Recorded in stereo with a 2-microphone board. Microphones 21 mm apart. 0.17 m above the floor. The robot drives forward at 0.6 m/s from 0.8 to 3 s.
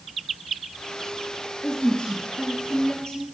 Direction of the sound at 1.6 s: 55° left (ahead or behind).